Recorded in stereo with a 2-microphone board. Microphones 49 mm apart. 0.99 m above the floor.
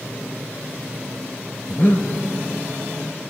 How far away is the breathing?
About 1.1 m.